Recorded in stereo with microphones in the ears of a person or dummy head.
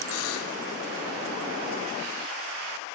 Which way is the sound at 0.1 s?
85° left.